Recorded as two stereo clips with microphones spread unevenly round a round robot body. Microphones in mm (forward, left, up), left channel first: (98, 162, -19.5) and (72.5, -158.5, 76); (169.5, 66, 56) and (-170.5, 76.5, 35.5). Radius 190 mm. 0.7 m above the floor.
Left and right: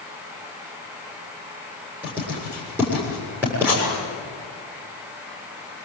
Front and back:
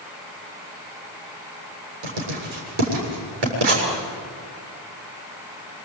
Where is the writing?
Straight behind, 7 m.